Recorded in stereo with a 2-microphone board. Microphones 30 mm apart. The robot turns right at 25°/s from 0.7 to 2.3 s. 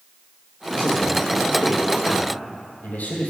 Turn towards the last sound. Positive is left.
turn(degrees=85)